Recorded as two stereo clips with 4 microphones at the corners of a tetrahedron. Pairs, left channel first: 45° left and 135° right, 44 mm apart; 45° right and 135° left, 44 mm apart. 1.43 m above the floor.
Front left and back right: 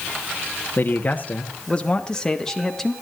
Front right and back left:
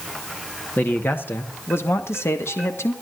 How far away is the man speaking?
About 1.3 m.